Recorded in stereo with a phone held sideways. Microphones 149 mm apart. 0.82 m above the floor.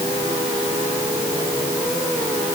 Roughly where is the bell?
No bell in this recording.